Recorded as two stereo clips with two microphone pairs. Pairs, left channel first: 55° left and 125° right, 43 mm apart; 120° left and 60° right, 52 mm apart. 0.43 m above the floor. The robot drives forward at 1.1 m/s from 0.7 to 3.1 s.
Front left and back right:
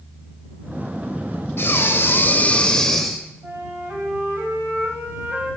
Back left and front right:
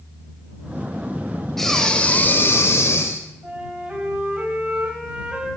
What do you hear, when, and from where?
1.6 s breathing: 35° left, 1.2 m; by 3.3 s 140° left, 1.1 m
3.4 s a flute: 130° right, 2.5 m